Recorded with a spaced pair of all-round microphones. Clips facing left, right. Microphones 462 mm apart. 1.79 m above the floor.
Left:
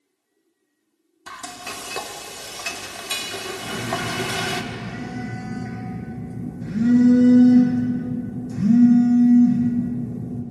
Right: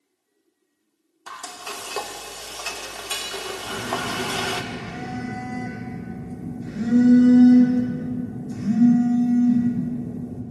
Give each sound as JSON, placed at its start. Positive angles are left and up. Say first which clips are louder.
{"t": 1.3, "sound": "frying", "louder": "left 1 dB", "side_deg": 40, "distance_m": 0.6}
{"t": 3.6, "sound": "a phone buzzing", "louder": "left 2 dB", "side_deg": 75, "distance_m": 2.0}